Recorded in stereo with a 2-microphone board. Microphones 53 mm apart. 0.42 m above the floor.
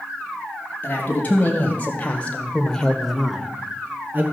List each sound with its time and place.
0.8 s a man speaking: 35° left (ahead or behind), 3 m; by 4.2 s 40° right (ahead or behind), 1.4 m